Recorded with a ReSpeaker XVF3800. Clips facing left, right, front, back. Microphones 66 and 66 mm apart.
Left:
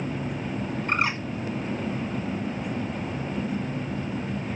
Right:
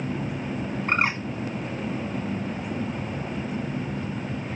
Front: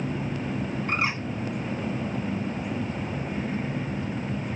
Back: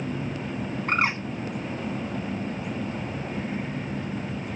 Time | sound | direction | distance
0.9 | a bird | 140° right | 1.2 m